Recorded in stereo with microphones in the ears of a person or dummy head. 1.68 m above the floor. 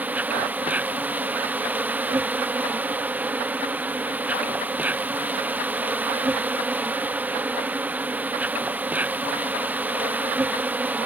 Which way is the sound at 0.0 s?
10° right (ahead or behind).